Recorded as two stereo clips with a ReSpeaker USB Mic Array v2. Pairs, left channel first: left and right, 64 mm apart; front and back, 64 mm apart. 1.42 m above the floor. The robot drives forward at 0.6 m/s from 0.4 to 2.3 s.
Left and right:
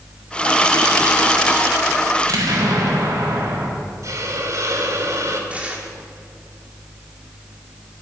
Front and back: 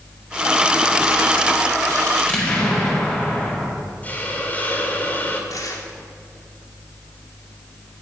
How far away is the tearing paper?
About 2.5 m.